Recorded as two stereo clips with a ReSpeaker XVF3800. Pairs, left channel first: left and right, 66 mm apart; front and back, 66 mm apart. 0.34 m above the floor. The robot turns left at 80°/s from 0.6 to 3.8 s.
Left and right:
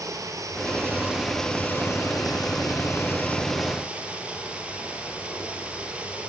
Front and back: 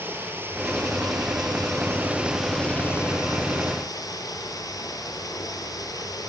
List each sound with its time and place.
0.0 s running water: 125° right, 4.5 m; by 6.3 s 20° right, 4.5 m